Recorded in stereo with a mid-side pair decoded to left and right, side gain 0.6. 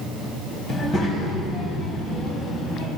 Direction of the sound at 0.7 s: 45° left.